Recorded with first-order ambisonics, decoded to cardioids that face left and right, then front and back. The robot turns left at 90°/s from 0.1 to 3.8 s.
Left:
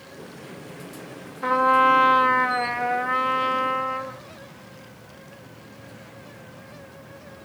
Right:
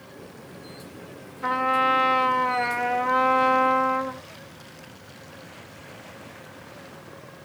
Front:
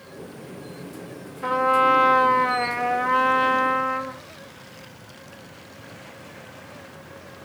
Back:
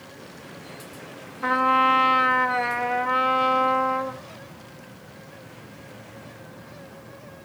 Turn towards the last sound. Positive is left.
turn(degrees=-80)